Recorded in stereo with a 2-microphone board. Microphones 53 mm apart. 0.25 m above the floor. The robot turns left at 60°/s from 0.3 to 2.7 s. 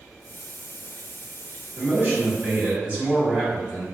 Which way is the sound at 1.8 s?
80° right.